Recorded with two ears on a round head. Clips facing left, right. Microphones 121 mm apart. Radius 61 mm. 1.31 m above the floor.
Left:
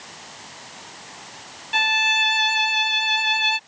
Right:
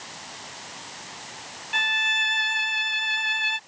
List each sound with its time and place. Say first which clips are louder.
1.7 s a violin: left 6 dB; 45° left (ahead or behind)